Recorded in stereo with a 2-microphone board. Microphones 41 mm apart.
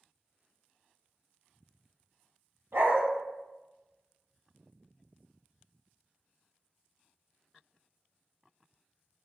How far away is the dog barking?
About 0.7 m.